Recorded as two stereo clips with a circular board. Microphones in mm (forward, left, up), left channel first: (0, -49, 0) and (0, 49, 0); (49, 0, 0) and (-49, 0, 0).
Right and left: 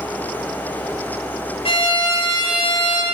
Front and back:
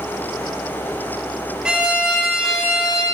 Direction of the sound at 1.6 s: 100° right.